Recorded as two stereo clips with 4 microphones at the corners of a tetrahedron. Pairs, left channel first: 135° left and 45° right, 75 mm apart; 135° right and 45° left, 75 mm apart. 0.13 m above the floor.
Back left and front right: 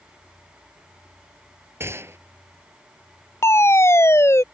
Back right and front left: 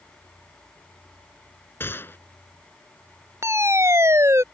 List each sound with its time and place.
1.8 s a gunshot: 85° right
3.4 s a fire alarm: 90° left